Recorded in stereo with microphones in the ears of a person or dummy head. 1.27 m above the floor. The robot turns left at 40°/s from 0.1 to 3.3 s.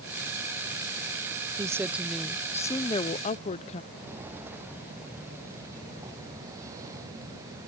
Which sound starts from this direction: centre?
Footsteps, at 3.9 s.